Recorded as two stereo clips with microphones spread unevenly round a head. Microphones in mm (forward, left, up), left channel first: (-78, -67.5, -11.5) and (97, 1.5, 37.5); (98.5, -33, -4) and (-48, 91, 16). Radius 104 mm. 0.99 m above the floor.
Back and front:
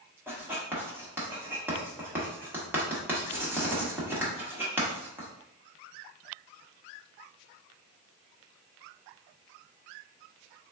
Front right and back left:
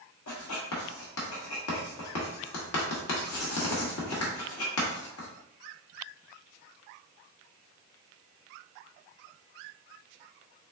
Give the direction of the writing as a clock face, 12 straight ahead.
2 o'clock.